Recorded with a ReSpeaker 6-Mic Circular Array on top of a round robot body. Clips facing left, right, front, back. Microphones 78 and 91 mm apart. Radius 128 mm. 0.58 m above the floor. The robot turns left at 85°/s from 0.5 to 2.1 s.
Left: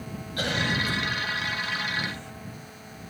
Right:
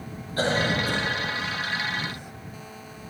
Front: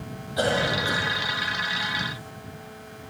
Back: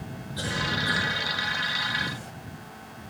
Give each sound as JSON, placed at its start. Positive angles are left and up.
{"t": 0.4, "sound": "a cough", "azimuth_deg": -35}